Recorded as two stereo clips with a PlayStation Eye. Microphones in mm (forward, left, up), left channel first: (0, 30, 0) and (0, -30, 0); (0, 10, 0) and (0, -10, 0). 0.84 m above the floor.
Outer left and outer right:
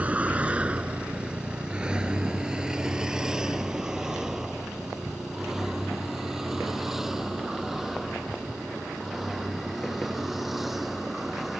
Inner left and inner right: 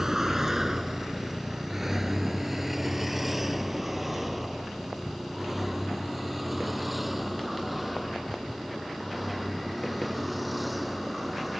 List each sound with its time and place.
0.0 s a vehicle: 25° right (ahead or behind); by 11.6 s centre (ahead or behind)